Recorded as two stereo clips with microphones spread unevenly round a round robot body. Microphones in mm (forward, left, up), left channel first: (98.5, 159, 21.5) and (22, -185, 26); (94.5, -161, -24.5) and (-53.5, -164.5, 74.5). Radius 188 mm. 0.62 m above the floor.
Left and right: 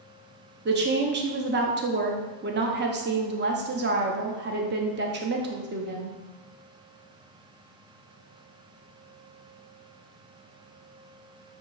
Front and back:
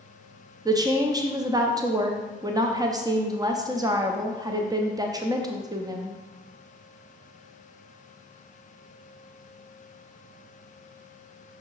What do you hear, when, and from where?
0.7 s a woman speaking: 70° right, 0.8 m